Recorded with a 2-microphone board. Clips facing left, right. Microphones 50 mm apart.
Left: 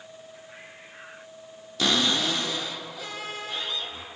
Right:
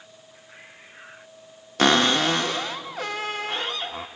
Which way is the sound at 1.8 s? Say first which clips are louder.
Right 6 dB; 55° right (ahead or behind).